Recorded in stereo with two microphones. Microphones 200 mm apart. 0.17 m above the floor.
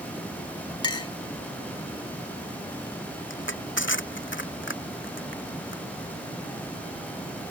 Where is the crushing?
85° left.